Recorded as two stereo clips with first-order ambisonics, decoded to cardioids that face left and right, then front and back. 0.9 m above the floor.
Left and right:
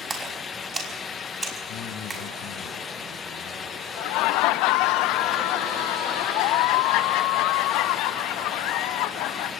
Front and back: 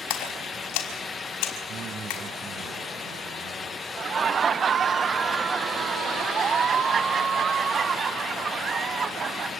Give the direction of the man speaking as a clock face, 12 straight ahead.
8 o'clock.